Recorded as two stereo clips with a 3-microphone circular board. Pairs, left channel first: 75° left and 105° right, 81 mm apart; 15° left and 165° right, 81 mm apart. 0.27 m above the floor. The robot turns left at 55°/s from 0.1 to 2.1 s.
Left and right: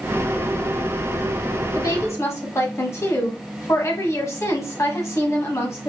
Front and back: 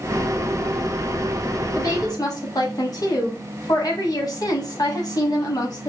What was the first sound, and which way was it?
A woman speaking, 50° left.